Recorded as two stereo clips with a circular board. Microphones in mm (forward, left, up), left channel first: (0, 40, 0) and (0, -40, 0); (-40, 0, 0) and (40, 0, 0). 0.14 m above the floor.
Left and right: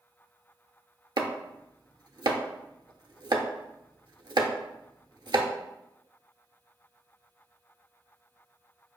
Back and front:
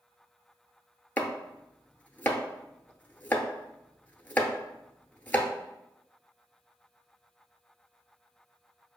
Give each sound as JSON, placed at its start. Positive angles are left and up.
{"t": 1.2, "sound": "chopping", "azimuth_deg": -115, "distance_m": 0.5}